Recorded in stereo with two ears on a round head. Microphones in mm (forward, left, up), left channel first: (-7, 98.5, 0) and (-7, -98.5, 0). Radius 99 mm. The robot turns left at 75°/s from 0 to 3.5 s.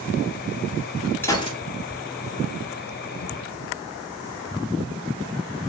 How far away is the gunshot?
About 2.5 m.